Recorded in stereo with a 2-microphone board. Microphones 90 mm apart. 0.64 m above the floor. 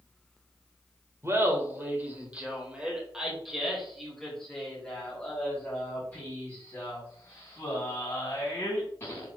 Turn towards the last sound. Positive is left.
turn(degrees=30)  # may be behind; listen again after turning